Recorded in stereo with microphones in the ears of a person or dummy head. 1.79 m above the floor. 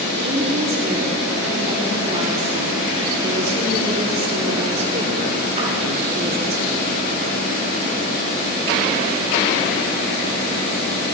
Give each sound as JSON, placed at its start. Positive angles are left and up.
{"t": 0.1, "sound": "a woman speaking", "side_deg": -45, "distance_m": 5.0}